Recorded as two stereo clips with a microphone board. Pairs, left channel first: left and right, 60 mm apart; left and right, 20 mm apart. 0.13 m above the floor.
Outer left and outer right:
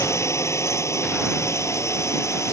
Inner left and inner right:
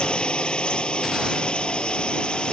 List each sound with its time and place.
0.0 s a drone: 50° left (ahead or behind)